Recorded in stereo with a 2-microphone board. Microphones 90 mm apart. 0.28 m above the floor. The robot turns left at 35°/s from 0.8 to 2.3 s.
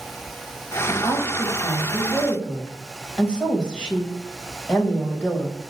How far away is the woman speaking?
About 1.3 m.